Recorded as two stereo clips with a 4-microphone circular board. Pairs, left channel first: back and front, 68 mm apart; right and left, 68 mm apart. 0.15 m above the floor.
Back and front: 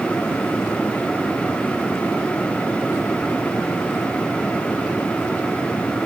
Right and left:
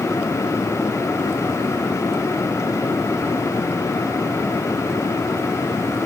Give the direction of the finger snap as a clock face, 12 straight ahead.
No finger snap in this recording.